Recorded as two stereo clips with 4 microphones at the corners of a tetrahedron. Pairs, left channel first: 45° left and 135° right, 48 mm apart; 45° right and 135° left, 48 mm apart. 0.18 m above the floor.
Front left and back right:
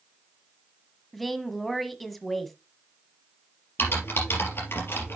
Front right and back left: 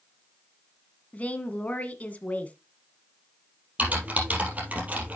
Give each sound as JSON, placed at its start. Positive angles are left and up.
{"t": 1.1, "sound": "a woman speaking", "azimuth_deg": -40, "distance_m": 1.3}
{"t": 3.8, "sound": "typing on a keyboard", "azimuth_deg": 80, "distance_m": 3.5}